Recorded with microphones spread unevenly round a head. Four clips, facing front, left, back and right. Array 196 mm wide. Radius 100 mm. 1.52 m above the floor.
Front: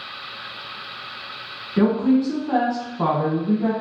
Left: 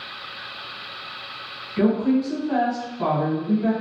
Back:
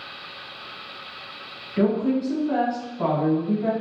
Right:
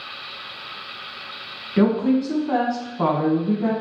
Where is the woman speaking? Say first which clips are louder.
Right 1 dB, front 4 dB; 50° right, 1.6 m.